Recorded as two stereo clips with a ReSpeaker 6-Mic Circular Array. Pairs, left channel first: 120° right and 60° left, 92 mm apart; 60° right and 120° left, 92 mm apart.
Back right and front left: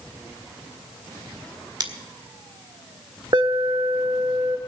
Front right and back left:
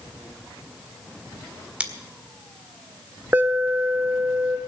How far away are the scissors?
About 1.7 m.